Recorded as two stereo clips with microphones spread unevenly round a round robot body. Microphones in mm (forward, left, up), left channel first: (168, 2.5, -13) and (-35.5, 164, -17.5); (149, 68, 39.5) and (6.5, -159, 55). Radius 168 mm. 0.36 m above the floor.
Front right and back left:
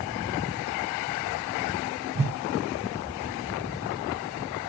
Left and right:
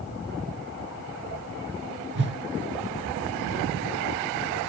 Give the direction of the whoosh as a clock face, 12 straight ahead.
5 o'clock.